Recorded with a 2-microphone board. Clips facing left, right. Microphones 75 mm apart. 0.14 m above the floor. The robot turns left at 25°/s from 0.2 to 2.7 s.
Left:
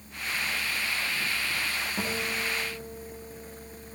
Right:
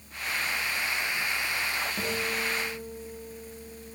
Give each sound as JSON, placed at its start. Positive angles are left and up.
{"t": 2.0, "sound": "a guitar", "side_deg": 5, "distance_m": 4.0}